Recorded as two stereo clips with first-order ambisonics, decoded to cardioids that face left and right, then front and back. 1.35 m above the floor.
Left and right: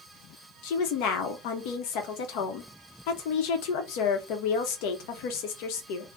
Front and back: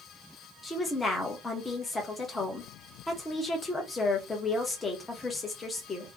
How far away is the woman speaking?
About 0.8 m.